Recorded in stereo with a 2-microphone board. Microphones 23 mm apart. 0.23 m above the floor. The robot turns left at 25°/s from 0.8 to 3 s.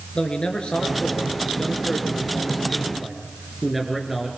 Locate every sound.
0.1 s a man speaking: 45° left, 4 m; by 4.3 s 10° right, 4 m